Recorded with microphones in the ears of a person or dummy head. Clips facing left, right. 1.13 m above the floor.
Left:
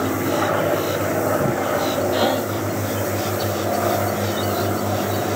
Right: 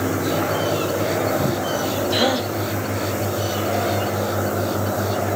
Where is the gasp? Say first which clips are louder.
Left 1 dB; 55° right (ahead or behind), 1.5 m.